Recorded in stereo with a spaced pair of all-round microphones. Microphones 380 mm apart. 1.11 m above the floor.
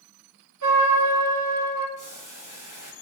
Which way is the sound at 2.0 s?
50° right (ahead or behind).